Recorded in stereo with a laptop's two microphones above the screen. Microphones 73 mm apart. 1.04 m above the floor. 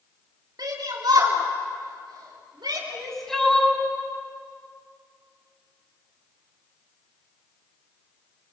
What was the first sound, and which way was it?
A shout, 70° right (ahead or behind).